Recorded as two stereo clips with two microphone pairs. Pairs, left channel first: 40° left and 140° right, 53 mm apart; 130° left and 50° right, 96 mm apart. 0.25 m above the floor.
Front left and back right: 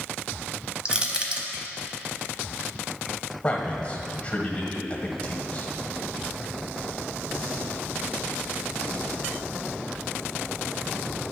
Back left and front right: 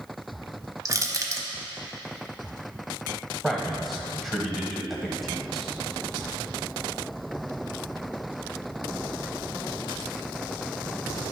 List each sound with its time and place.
0.8 s crushing: 80° right, 0.9 m
3.4 s a man speaking: 40° left, 1.1 m